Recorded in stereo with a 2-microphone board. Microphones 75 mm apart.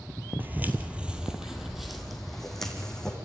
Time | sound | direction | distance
0.4 | footsteps | 25° right (ahead or behind) | 1.7 m